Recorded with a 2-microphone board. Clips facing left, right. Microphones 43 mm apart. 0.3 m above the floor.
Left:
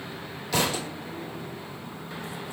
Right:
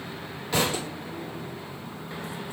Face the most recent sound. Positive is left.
turn(degrees=-30)  # may be behind; listen again after turning